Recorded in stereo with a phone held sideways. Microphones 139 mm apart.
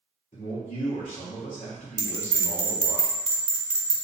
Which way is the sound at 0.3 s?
60° left (ahead or behind).